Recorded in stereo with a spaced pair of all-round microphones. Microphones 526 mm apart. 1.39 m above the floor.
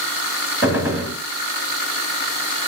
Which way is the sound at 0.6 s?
5° right (ahead or behind).